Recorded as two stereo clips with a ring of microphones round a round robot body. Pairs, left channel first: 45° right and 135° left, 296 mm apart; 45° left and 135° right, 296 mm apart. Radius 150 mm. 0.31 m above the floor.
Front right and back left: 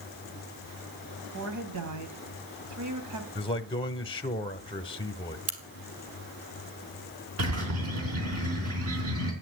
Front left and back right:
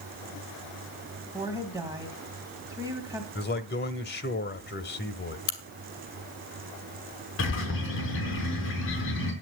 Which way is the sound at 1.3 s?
145° left.